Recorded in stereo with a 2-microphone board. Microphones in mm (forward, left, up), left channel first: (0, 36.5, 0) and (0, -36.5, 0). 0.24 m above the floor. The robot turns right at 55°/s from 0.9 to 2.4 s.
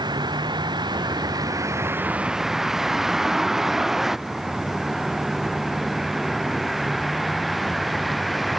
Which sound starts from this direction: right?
A vehicle, at 0.0 s.